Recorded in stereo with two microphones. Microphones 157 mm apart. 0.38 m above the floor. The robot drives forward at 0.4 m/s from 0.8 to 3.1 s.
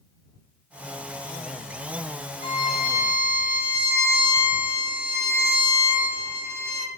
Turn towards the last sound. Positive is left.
turn(degrees=65)  # may be behind; listen again after turning